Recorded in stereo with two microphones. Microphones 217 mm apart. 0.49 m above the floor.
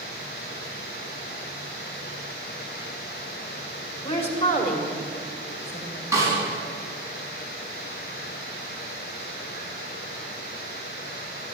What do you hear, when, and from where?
4.0 s a woman speaking: 25° left (ahead or behind), 2.5 m; by 6.0 s 65° left (ahead or behind), 3 m
6.1 s a snare drum: 15° right (ahead or behind), 5 m